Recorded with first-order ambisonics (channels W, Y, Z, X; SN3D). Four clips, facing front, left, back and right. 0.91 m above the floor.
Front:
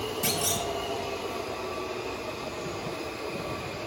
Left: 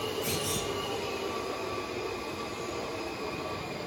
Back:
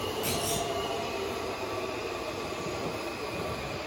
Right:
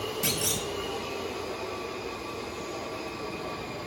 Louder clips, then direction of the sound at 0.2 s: Right 2 dB, front 4 dB; 60° right.